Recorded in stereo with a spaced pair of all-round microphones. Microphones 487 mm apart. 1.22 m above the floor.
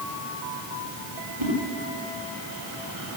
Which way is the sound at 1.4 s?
75° right (ahead or behind).